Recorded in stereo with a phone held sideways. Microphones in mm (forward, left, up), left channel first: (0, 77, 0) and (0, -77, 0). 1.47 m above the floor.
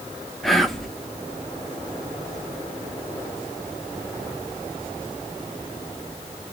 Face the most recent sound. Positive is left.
turn(degrees=0)  # may be behind; listen again after turning